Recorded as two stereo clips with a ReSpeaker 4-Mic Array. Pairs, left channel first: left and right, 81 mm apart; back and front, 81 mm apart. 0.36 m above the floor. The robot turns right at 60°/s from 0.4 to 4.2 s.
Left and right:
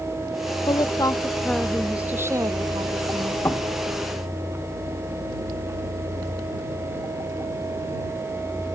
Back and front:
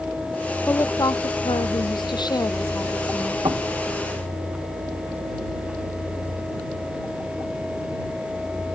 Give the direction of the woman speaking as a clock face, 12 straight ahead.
8 o'clock.